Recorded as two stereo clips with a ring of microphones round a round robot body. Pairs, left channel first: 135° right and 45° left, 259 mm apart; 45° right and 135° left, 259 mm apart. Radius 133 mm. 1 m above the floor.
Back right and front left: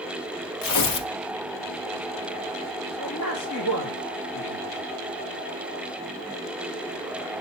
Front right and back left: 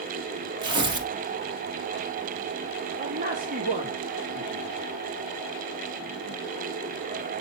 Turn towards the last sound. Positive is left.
turn(degrees=-165)